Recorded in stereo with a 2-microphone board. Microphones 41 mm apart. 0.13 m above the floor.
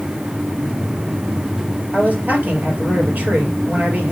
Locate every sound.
1.9 s a man speaking: 40° right (ahead or behind), 2.5 m